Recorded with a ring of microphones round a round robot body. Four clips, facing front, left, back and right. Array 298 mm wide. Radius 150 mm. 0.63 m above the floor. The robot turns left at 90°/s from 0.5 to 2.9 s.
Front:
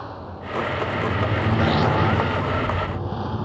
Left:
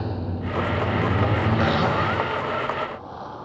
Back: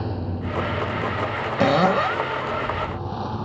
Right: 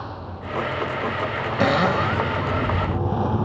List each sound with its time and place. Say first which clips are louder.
0.0 s a lawn mower: left 4 dB, back 5 dB; 135° left; by 3.5 s 80° right
1.6 s a cupboard door: right 6 dB, back 4 dB; 140° right; by 2.3 s 160° left